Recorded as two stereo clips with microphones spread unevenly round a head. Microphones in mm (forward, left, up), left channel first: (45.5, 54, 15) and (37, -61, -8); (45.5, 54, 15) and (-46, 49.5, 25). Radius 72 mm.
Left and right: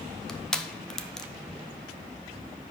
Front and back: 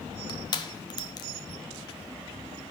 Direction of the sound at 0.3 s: 10° right.